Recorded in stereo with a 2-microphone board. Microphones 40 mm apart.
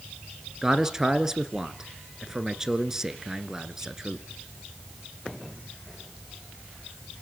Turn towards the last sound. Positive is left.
turn(degrees=-15)  # may be behind; listen again after turning